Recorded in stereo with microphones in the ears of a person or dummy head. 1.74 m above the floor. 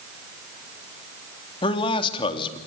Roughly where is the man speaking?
Left.